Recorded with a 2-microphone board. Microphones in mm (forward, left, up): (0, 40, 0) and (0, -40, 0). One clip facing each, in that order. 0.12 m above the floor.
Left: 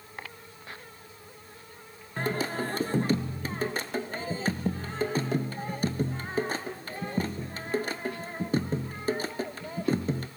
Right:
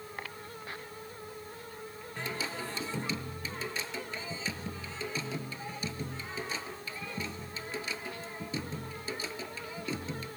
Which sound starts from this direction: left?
Singing, at 2.2 s.